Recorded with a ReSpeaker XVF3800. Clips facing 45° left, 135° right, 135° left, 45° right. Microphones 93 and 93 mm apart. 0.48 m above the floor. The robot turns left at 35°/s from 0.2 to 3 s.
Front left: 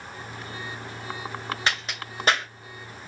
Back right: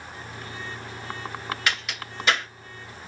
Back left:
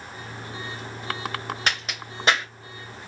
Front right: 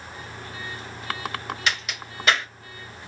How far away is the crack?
About 1.8 m.